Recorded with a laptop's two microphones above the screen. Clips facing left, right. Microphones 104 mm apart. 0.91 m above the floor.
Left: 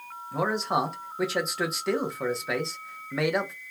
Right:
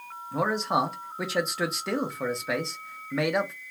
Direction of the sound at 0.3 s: Centre (ahead or behind).